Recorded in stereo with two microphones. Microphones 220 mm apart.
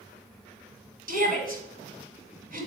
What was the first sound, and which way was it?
A shout, 40° right (ahead or behind).